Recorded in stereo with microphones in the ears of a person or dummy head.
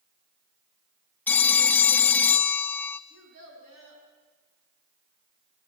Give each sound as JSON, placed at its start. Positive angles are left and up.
{"t": 1.3, "sound": "a phone ringing", "side_deg": 10, "distance_m": 0.6}
{"t": 3.1, "sound": "a child speaking", "side_deg": -85, "distance_m": 7.5}